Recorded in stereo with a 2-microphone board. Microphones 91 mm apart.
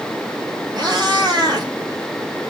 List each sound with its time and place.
0.8 s a cat meowing: 55° right (ahead or behind), 3.5 m